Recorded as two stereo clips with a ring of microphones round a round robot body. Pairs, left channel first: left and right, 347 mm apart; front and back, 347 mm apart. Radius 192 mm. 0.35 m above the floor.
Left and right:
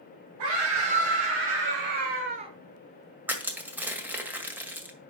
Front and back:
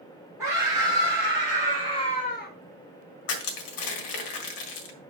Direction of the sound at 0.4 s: 95° right.